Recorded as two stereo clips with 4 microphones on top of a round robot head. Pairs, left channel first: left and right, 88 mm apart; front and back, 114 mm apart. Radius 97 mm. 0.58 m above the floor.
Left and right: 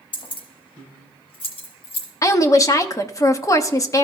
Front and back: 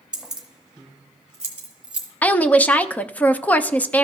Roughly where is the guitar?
I don't hear a guitar.